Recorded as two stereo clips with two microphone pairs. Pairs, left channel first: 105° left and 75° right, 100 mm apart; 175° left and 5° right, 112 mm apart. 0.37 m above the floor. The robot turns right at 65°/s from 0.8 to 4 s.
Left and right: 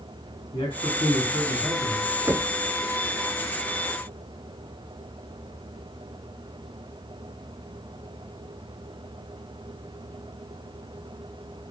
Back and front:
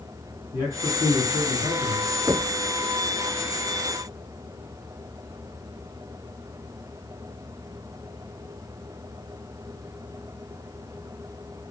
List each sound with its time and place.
0.5 s a man speaking: 145° left, 4.5 m; by 2.1 s 130° right, 4.5 m
2.3 s knocking: 25° right, 0.5 m; by 2.5 s 5° right, 0.5 m